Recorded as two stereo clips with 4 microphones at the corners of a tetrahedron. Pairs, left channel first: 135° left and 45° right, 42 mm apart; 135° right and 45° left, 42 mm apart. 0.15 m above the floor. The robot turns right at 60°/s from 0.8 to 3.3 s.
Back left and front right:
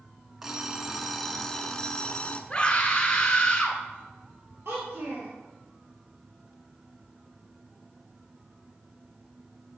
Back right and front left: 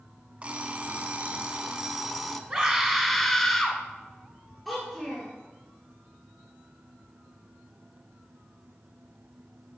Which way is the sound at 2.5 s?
115° left.